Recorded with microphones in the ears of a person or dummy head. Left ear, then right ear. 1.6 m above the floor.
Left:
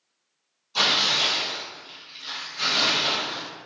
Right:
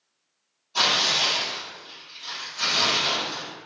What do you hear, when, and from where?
0.8 s tearing paper: centre (ahead or behind), 1.0 m